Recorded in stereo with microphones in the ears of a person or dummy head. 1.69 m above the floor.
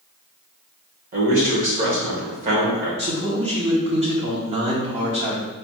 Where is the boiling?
No boiling in this recording.